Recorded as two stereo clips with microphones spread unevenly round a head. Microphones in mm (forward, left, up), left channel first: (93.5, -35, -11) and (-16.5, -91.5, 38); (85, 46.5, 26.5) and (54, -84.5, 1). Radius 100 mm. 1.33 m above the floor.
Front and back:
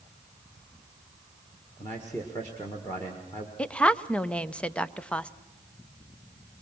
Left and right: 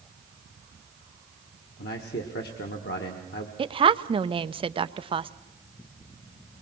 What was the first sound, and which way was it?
A man speaking, 100° left.